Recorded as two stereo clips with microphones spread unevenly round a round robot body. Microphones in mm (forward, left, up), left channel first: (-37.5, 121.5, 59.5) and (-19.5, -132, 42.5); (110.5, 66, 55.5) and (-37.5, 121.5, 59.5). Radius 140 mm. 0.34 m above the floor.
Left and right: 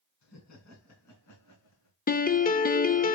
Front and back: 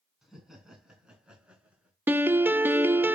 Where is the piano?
95° left, 0.7 m.